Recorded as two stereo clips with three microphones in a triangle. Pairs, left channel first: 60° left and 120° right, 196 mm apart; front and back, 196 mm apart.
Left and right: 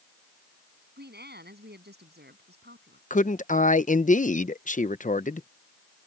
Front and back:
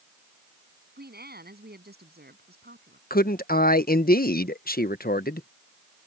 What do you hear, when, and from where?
1.0 s a woman speaking: 150° right
3.1 s a man speaking: 20° left